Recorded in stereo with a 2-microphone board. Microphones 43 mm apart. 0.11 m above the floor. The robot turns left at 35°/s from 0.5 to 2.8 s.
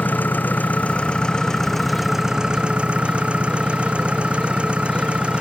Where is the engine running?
50° left; by 5.4 s 30° right.